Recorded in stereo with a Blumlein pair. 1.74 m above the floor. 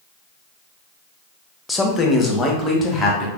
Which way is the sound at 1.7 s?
10° left.